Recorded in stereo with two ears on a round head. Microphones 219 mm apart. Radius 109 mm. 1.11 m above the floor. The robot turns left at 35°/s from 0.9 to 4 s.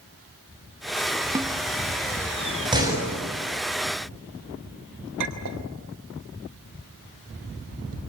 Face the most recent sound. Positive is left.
turn(degrees=-90)